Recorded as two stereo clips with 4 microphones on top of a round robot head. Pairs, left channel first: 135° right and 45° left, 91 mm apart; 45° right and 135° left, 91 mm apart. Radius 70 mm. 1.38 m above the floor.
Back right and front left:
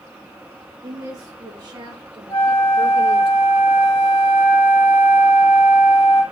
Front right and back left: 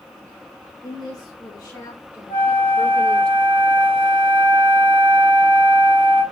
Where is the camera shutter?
No camera shutter in this recording.